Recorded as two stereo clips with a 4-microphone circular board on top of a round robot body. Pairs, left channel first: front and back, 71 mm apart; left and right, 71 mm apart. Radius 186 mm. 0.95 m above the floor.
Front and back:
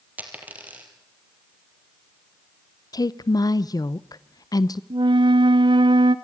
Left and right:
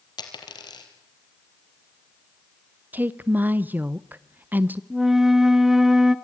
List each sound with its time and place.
0.2 s a dropped coin: 110° left, 3 m
2.9 s a woman speaking: 25° right, 0.8 m
4.9 s a flute: 175° right, 1.1 m